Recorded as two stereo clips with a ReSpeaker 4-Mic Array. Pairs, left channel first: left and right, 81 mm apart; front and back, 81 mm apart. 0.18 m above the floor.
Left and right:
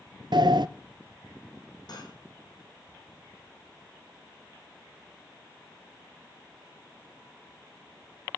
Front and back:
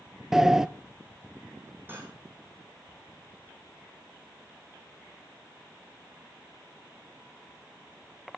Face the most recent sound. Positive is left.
turn(degrees=120)